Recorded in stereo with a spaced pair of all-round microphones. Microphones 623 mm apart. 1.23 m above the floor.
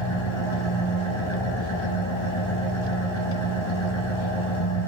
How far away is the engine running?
About 5 m.